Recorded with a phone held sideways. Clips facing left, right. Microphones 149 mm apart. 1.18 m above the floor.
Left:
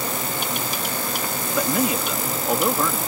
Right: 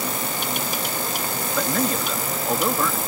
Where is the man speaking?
10° left (ahead or behind).